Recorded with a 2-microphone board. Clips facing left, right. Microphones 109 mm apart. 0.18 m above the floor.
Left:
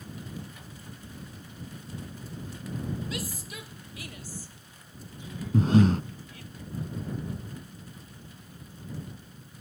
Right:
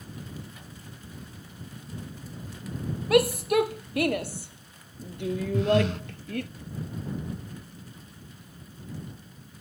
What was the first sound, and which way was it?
A shout, 70° right (ahead or behind).